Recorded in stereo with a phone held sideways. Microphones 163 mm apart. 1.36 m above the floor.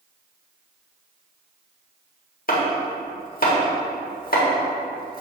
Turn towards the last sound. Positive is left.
turn(degrees=65)  # may be behind; listen again after turning